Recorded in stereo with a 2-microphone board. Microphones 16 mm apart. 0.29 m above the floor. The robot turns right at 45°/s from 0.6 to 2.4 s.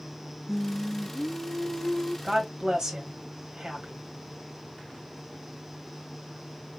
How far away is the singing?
About 0.6 m.